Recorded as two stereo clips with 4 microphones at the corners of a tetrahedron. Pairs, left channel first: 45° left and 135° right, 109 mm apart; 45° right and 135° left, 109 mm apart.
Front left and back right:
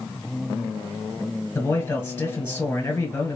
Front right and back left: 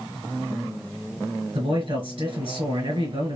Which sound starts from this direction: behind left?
A man speaking, at 1.6 s.